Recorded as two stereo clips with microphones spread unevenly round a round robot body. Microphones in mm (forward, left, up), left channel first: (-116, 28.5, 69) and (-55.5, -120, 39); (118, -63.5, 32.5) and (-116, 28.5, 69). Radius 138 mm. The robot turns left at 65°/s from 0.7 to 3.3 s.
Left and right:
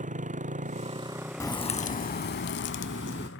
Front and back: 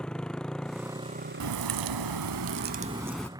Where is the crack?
175° right; by 3.3 s 65° left.